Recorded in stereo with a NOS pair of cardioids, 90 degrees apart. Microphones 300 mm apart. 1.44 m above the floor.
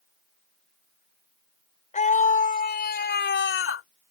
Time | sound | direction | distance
1.9 | a scream | 25° left | ?